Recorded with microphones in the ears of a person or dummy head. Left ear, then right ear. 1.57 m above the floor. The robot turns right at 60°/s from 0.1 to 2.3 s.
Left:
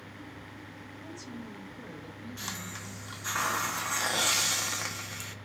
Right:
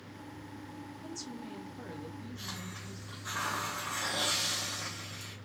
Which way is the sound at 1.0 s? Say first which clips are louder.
Even; 80° right.